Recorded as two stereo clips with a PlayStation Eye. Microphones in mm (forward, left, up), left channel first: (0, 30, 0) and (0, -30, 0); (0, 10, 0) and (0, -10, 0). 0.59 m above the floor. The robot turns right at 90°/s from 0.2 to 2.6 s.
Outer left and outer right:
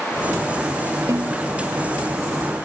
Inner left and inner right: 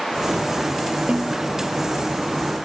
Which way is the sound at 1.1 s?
60° right (ahead or behind).